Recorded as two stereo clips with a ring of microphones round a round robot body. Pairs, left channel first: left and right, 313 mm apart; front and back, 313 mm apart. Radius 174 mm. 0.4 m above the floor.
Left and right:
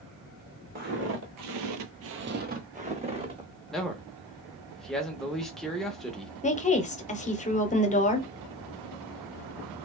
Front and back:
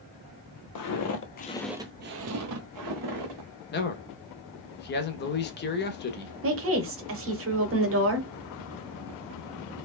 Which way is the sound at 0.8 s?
25° right.